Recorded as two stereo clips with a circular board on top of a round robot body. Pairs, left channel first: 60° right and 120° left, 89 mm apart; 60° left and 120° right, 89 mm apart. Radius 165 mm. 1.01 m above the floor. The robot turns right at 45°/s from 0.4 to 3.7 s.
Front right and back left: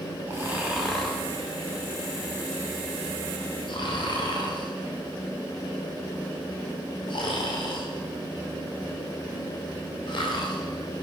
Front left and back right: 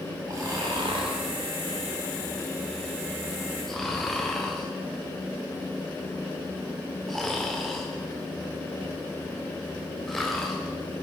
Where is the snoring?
175° right, 1.6 m; by 10.6 s 25° right, 1.6 m.